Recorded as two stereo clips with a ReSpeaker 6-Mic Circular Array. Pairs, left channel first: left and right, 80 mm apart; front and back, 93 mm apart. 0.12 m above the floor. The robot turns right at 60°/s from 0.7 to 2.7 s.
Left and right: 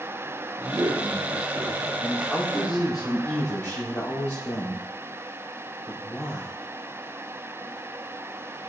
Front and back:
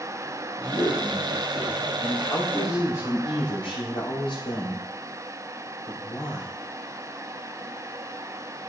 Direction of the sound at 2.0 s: 15° right.